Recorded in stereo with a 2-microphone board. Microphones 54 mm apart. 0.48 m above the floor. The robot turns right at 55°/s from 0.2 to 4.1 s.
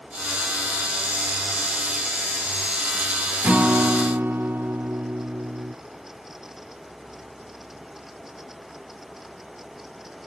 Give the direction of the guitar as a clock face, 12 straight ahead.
5 o'clock.